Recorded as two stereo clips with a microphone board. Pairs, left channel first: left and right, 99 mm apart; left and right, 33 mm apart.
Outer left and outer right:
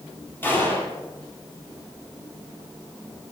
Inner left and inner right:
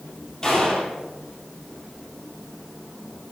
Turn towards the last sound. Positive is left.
turn(degrees=20)  # may be behind; listen again after turning